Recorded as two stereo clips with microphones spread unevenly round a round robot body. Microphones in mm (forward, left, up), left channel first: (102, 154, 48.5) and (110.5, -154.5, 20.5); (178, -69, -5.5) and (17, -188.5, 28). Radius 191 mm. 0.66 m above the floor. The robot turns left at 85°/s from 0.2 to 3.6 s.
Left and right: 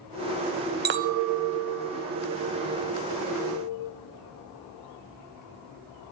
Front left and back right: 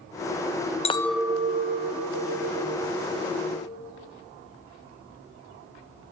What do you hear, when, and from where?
0.8 s a clink: 25° right, 0.5 m; by 4.0 s 100° left, 0.5 m